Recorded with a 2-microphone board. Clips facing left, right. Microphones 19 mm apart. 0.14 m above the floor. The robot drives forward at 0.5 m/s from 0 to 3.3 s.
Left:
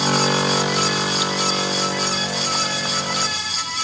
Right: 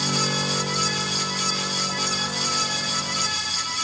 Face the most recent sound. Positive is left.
No sound to turn to.